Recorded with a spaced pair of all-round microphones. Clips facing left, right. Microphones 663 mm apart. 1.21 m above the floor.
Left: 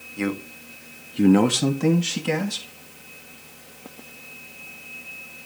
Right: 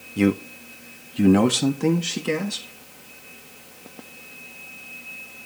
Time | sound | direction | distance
0.2 | a man speaking | 60° right (ahead or behind) | 0.9 m